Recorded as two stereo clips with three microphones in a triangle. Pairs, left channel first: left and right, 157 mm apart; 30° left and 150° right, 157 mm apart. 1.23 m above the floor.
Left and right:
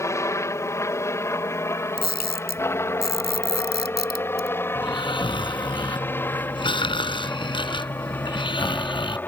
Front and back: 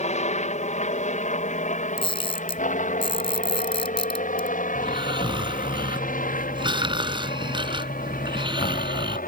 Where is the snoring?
150° left.